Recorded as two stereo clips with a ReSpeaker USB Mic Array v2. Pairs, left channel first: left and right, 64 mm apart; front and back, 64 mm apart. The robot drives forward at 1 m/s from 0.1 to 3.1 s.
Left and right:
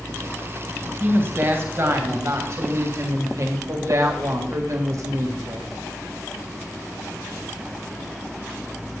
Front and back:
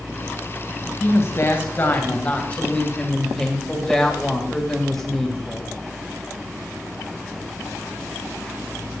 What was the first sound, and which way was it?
A woman speaking, 40° right.